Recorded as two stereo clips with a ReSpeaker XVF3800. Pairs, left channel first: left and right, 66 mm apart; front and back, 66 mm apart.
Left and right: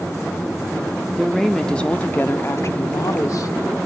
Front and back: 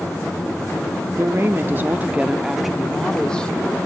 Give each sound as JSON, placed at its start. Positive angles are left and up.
{"t": 1.2, "sound": "a woman speaking", "azimuth_deg": -175, "distance_m": 0.9}